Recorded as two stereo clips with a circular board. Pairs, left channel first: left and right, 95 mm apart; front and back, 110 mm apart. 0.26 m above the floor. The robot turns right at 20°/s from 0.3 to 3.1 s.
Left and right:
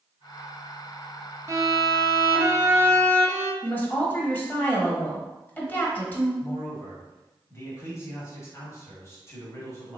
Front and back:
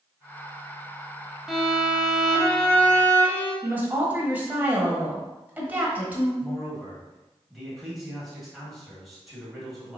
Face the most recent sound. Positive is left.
turn(degrees=90)